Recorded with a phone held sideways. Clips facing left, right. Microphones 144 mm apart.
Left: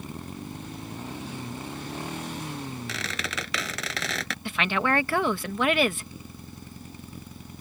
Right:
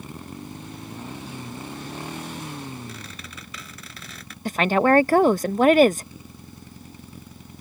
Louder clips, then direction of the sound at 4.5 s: Right 8 dB; 40° right (ahead or behind).